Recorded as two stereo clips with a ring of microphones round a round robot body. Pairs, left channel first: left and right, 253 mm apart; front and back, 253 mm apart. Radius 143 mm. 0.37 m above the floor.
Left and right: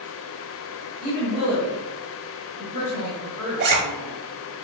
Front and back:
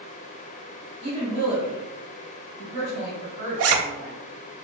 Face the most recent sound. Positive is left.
turn(degrees=-145)